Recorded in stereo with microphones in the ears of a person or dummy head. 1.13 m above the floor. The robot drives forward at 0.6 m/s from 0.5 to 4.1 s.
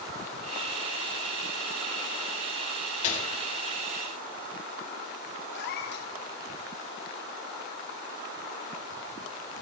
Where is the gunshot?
40° left (ahead or behind), 2.5 m; by 3.3 s 45° left (ahead or behind), 2 m.